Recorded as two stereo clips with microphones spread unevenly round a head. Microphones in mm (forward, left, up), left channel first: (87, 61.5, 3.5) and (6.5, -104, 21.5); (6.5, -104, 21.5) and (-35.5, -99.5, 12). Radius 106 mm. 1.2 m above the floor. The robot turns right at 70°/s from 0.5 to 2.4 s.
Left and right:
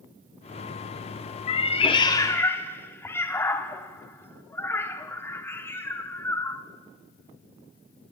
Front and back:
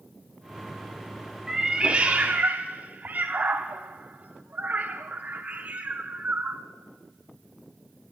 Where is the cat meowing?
75° left, 0.7 m; by 6.6 s 140° left, 0.7 m.